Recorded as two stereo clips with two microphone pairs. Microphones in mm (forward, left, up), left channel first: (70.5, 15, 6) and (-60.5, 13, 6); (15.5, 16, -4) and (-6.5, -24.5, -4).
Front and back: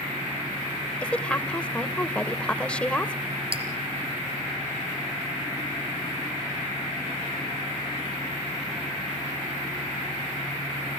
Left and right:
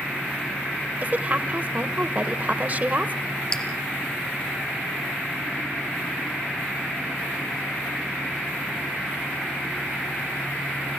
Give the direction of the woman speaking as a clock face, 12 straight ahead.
3 o'clock.